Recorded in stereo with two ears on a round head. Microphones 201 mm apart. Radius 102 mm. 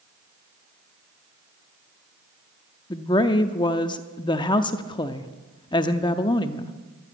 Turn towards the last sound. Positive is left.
turn(degrees=20)  # may be behind; listen again after turning